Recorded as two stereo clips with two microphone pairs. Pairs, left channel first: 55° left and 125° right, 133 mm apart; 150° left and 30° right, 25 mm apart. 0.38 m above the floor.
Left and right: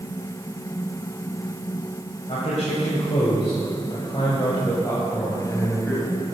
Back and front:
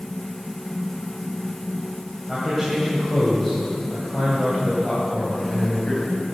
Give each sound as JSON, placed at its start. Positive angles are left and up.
{"t": 2.3, "sound": "a man speaking", "azimuth_deg": 60, "distance_m": 2.5}